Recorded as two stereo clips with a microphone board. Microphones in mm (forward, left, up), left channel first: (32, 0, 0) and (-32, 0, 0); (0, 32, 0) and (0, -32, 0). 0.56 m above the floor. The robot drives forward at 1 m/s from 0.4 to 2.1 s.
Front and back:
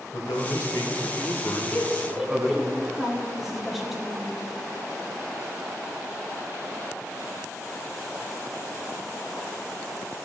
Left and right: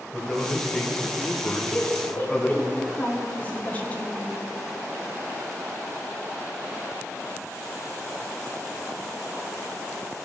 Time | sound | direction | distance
0.1 | a man speaking | 10° left | 1.6 m
1.5 | a woman speaking | 45° left | 1.4 m